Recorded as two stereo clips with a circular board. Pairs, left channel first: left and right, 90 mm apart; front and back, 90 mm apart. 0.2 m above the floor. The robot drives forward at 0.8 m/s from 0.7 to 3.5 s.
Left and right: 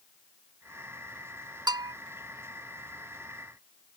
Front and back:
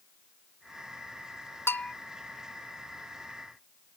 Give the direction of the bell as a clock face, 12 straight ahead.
2 o'clock.